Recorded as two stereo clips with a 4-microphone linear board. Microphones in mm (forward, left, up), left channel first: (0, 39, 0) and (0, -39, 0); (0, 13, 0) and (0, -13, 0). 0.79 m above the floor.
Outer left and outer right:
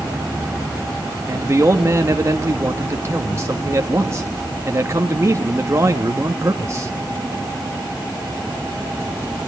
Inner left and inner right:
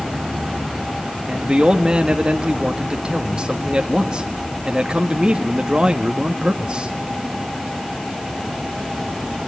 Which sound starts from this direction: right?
A man speaking, at 1.3 s.